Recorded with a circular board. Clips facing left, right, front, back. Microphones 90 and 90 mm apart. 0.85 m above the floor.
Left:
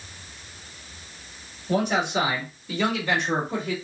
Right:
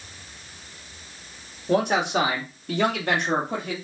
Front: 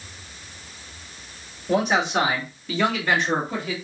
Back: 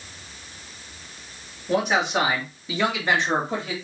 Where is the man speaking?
85° right, 1.8 m; by 3.7 s 120° right, 2.5 m.